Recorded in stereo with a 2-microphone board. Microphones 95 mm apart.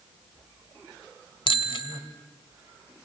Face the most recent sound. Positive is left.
turn(degrees=70)  # may be behind; listen again after turning